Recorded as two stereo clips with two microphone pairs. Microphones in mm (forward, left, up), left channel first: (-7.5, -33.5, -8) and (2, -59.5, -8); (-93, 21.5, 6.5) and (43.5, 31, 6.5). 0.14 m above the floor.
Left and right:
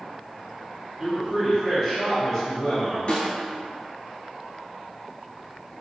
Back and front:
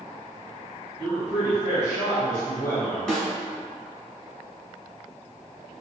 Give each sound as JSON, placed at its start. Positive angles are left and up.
{"t": 1.0, "sound": "a man speaking", "azimuth_deg": -30, "distance_m": 1.4}
{"t": 3.1, "sound": "a snare drum", "azimuth_deg": 105, "distance_m": 1.0}